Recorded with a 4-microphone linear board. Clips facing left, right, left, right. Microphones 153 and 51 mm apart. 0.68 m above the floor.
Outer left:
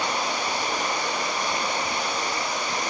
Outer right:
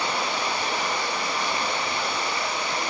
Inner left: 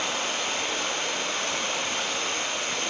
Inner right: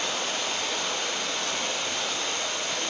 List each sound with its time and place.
0.0 s running water: 40° left (ahead or behind), 3.5 m